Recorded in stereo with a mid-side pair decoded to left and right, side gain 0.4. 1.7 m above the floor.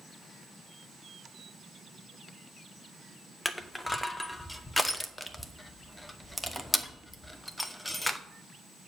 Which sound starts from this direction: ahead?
Crushing, at 3.5 s.